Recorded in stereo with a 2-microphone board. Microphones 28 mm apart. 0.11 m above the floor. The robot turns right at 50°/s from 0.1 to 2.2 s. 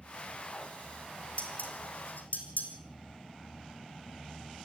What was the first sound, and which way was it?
Dishes clattering, 50° left (ahead or behind).